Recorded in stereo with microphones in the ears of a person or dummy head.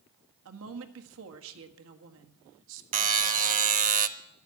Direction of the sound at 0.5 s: 65° right (ahead or behind).